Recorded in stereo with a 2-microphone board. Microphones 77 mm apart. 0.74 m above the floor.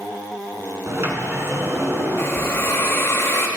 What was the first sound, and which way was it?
A sliding door, 35° right (ahead or behind).